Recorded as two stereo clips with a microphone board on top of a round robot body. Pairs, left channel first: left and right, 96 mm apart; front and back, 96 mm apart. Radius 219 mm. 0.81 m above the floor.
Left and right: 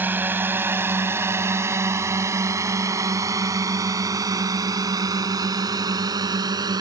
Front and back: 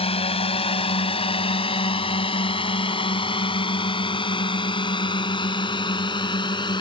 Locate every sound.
0.0 s a drone: 20° right; by 6.8 s 40° right